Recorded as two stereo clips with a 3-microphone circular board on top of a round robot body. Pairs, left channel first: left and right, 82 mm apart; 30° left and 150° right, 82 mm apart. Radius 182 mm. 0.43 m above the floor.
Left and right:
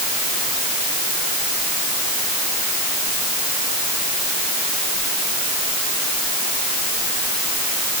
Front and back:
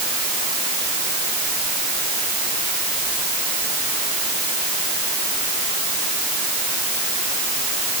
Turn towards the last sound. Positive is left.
No sound to turn to.